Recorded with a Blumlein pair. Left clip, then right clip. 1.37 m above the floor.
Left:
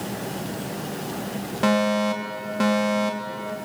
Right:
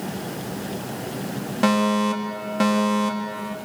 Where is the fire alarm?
10° right, 4 m.